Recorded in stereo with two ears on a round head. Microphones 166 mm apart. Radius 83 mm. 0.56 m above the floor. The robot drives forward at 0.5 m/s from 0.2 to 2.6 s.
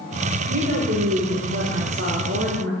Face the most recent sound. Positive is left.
turn(degrees=-60)  # may be behind; listen again after turning